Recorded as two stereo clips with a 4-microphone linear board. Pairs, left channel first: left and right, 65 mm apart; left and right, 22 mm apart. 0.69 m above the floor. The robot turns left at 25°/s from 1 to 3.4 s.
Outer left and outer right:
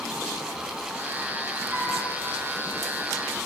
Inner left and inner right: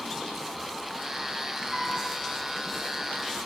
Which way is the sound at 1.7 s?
30° right (ahead or behind).